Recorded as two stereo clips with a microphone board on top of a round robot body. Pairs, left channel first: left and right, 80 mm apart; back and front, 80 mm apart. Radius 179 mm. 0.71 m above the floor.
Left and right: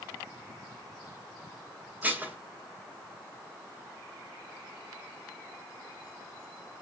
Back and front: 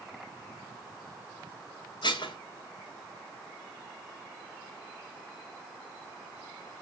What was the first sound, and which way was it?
Dishes clattering, 160° right.